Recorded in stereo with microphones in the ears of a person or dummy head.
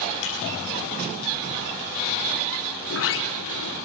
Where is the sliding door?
80° left, 3 m.